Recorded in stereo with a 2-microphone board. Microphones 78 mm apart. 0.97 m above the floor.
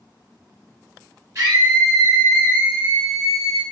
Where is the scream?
40° right (ahead or behind), 1.7 m; by 3.6 s 5° right (ahead or behind), 2 m.